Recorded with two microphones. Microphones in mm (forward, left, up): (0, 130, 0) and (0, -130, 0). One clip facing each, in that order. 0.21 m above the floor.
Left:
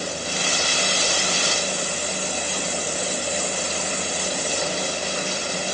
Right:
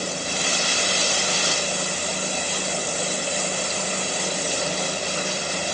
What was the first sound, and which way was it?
Only background noise.